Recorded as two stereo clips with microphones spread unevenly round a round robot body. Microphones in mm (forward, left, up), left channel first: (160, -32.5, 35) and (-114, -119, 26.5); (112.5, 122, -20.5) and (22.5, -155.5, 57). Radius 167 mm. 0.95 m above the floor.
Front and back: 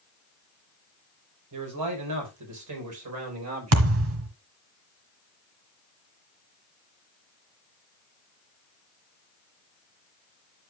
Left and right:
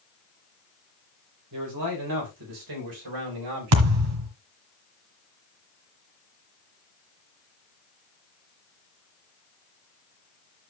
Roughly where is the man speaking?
Behind right.